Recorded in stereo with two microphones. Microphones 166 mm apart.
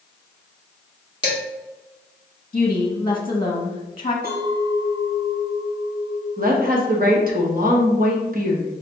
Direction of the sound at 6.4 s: 55° right (ahead or behind).